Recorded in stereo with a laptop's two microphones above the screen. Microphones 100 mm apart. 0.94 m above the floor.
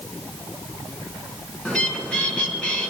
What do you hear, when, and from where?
1.6 s a bird: 10° left (ahead or behind), 3 m